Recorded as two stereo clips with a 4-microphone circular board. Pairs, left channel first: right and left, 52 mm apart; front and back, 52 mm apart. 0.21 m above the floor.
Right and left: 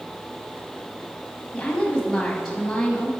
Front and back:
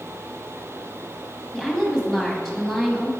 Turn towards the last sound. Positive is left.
turn(degrees=-60)